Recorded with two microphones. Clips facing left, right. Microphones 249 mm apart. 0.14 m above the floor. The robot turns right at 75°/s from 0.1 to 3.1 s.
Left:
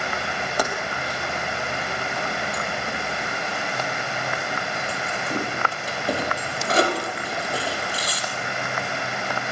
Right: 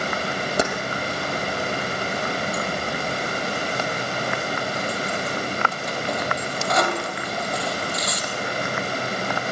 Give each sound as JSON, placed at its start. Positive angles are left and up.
{"t": 0.6, "sound": "keys jangling", "side_deg": -25, "distance_m": 3.0}